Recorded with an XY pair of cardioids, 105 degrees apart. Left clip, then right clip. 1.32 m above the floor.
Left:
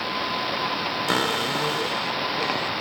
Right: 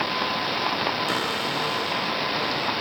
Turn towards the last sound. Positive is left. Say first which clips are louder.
# left 2 dB
turn(degrees=40)